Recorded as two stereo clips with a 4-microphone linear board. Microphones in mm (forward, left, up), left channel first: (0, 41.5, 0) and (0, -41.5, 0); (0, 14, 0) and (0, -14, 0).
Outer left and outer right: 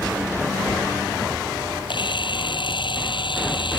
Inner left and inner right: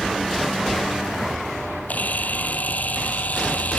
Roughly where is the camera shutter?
Left.